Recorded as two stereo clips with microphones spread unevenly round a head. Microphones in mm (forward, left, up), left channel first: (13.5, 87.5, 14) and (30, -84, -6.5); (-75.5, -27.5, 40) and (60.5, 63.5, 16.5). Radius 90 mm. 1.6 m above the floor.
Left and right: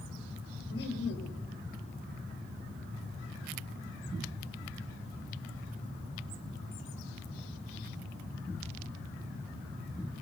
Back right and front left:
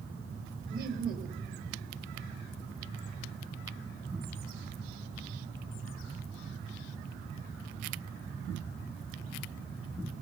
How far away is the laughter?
About 3.5 m.